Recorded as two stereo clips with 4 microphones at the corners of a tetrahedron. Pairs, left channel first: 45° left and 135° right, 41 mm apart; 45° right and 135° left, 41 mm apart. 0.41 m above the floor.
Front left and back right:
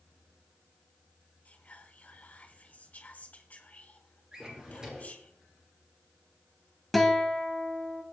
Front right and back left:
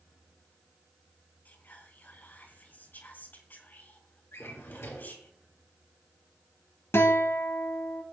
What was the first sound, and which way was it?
Whispering, 5° right.